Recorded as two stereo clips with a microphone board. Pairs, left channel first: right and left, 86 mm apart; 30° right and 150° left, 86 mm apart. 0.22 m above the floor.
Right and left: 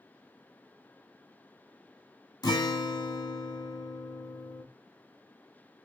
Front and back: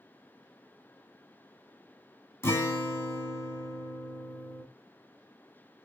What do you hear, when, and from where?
2.4 s a guitar: 80° right, 1.2 m